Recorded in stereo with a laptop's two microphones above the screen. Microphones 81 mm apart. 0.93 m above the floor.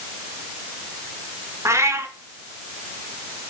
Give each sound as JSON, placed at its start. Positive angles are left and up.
{"t": 1.6, "sound": "a cat meowing", "side_deg": -35, "distance_m": 1.8}